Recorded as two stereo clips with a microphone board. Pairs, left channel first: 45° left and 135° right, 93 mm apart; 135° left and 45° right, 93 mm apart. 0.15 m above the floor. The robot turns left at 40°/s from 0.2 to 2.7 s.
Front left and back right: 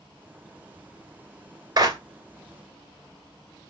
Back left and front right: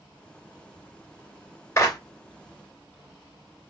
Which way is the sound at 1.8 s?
170° right.